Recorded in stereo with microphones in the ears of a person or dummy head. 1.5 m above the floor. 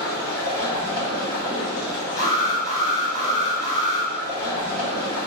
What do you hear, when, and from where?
0.0 s running water: 20° left (ahead or behind), 0.9 m
2.2 s an alarm: 15° left (ahead or behind), 1.4 m